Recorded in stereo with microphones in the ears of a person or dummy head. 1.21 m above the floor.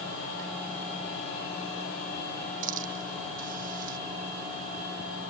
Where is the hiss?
45° right (ahead or behind).